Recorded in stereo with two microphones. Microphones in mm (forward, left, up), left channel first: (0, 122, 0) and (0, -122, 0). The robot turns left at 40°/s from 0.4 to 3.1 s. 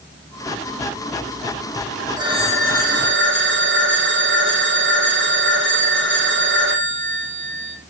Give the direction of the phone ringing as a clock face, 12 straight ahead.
12 o'clock.